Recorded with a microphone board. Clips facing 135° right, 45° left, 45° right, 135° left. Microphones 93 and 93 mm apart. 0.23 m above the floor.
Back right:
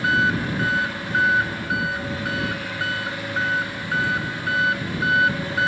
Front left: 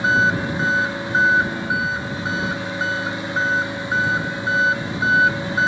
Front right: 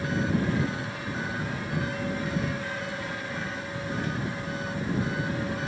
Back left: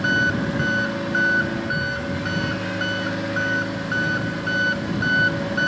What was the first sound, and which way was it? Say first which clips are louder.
An engine running: front left 2 dB, back left 6 dB; 115° left.